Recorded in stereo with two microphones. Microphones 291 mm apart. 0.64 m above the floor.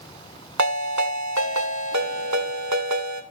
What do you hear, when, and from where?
0.6 s a ringtone: 75° right (ahead or behind), 1.6 m